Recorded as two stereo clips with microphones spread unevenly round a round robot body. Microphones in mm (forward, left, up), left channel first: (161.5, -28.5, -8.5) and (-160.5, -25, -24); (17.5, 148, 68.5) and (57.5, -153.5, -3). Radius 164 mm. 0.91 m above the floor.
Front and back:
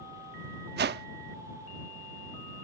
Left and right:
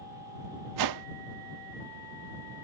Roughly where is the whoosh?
Behind right.